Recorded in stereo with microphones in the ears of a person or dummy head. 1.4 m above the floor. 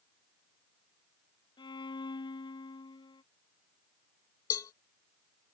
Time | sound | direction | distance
1.6 | a violin | 25° left (ahead or behind) | ?
4.5 | a cowbell | 20° left (ahead or behind) | ?